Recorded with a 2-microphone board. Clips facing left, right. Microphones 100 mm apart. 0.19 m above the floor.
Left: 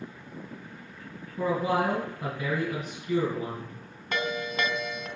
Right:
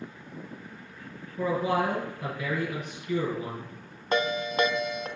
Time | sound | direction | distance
1.4 | a man speaking | 30° left (ahead or behind) | 3 m
4.1 | a ringtone | 35° right (ahead or behind) | 0.5 m